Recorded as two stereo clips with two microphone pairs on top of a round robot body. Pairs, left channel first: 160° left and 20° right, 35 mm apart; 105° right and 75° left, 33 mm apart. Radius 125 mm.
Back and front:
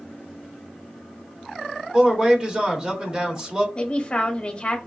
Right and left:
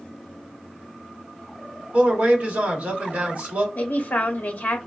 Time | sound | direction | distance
1.9 | a man speaking | 40° left | 1.2 m
3.8 | a man speaking | 130° right | 0.7 m